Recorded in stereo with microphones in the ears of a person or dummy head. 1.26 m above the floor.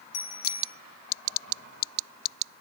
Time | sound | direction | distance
0.1 | a bicycle bell | 55° left (ahead or behind) | 6.5 m